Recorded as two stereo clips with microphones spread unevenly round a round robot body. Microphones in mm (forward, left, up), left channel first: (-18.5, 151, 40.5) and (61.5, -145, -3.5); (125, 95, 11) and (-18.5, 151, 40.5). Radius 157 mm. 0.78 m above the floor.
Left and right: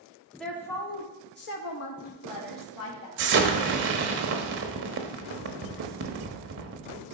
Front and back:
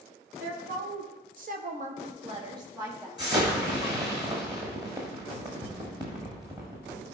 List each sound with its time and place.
0.4 s a woman speaking: 160° right, 1.5 m; by 3.1 s 80° left, 1.7 m
3.2 s an explosion: 130° right, 0.9 m